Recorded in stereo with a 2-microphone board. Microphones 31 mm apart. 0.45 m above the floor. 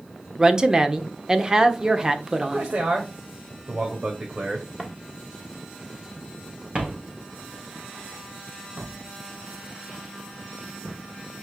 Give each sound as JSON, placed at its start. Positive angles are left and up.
{"t": 0.4, "sound": "a woman speaking", "side_deg": -25, "distance_m": 0.9}
{"t": 2.4, "sound": "a man speaking", "side_deg": -45, "distance_m": 1.8}
{"t": 4.8, "sound": "footsteps", "side_deg": -5, "distance_m": 2.0}